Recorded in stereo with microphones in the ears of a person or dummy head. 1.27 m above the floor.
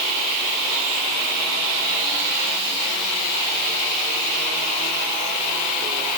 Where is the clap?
I don't hear a clap.